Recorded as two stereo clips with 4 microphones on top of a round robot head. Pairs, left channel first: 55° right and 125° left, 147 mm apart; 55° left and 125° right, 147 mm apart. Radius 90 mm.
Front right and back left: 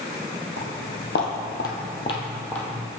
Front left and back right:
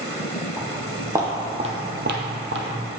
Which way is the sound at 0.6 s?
40° right.